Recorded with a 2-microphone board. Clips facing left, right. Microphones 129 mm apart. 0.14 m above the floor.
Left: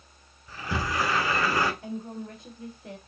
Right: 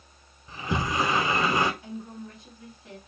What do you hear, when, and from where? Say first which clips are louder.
0.5 s a sliding door: right 2 dB; 20° right (ahead or behind), 0.8 m
1.8 s a woman speaking: left 3 dB; 50° left (ahead or behind), 3 m